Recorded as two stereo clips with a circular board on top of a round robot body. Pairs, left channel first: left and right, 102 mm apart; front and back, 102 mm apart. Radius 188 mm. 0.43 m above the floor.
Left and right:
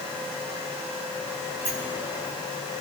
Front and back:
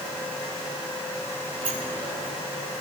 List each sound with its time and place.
1.6 s a sliding door: 155° right, 7.5 m